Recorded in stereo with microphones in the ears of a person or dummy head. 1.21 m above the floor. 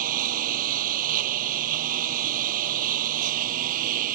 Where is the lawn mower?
55° right (ahead or behind).